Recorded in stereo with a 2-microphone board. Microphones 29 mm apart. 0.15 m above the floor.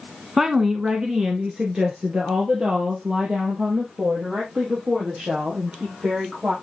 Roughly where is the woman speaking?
Centre.